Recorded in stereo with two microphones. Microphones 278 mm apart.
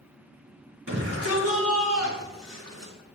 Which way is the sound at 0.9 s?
55° right (ahead or behind).